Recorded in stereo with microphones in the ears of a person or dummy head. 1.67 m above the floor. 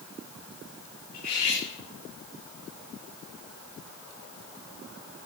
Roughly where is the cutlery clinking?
Left.